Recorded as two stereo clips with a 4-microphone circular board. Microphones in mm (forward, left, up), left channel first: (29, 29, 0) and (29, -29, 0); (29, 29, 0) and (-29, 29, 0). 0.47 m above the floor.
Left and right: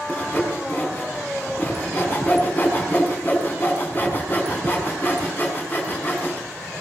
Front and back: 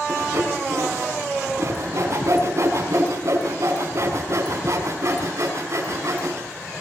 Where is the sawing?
145° left, 5 m.